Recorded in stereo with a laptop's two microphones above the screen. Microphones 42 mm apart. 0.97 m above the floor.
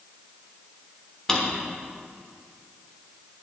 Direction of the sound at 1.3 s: 15° left (ahead or behind).